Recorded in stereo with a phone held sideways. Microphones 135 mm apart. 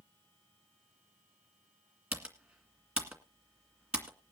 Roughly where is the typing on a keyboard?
Centre.